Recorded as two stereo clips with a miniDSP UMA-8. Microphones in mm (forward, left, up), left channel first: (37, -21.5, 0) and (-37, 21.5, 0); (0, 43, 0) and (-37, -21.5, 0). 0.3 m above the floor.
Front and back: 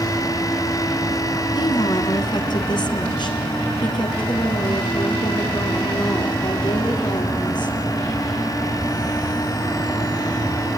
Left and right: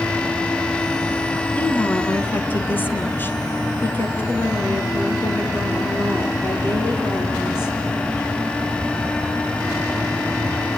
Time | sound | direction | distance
1.6 | a woman speaking | 5° right | 2.0 m